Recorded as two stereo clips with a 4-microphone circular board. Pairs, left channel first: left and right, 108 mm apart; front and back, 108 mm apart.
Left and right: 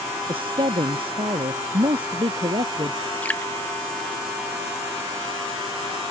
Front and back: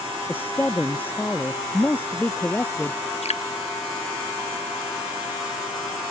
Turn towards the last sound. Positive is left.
turn(degrees=15)